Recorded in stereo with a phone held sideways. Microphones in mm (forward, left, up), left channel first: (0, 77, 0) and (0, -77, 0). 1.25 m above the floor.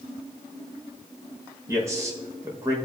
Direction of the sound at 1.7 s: 20° right (ahead or behind).